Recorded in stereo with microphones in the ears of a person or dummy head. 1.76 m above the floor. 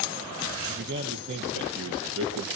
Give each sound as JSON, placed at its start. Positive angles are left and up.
{"t": 0.7, "sound": "a man speaking", "side_deg": -60, "distance_m": 2.0}